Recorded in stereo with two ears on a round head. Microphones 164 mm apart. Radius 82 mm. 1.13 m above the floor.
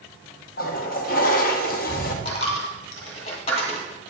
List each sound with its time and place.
0.6 s a toilet flushing: 50° left (ahead or behind), 0.7 m
2.2 s a dropped coin: 35° left (ahead or behind), 1.5 m